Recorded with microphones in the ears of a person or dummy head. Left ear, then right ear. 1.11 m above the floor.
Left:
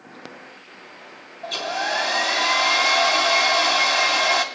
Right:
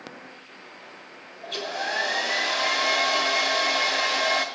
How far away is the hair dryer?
About 2.5 m.